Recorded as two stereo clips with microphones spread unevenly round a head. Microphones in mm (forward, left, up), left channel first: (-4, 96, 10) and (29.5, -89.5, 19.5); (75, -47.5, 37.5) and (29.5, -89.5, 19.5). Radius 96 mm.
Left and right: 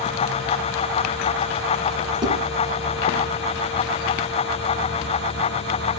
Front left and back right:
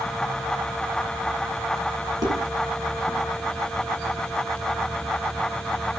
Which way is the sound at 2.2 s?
150° right.